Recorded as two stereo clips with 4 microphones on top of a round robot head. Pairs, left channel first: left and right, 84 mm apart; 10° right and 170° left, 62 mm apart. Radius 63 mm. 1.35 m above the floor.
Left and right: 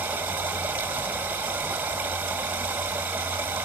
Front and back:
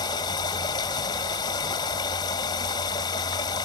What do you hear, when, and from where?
0.0 s running water: 10° right, 1.9 m